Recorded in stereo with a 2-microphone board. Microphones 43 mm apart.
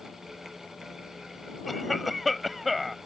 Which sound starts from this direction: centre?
A cough, at 1.7 s.